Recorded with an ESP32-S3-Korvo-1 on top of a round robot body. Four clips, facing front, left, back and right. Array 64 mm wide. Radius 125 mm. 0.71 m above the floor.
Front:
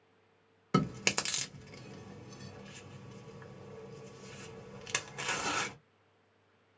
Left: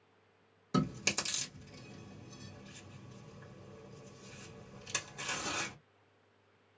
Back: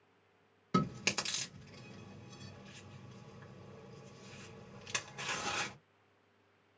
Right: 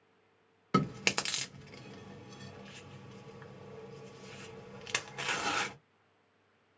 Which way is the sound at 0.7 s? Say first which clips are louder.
Right 3 dB, front 3 dB; 65° right.